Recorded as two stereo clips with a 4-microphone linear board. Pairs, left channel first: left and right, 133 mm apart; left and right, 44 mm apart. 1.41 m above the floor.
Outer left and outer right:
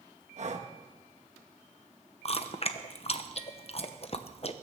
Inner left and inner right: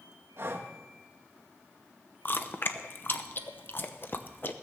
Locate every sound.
0.4 s breathing: 60° right (ahead or behind), 1.4 m
2.2 s chewing: 50° left (ahead or behind), 0.9 m